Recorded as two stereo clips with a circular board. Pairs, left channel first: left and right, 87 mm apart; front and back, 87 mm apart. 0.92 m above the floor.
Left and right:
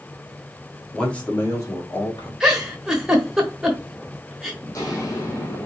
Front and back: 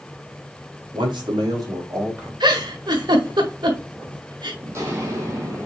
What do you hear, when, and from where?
0.9 s a man speaking: 170° left, 2.0 m; by 2.3 s 120° left, 2.5 m
2.4 s a giggle: 175° right, 1.2 m
4.6 s footsteps: 130° left, 1.9 m; by 5.7 s 135° left, 1.5 m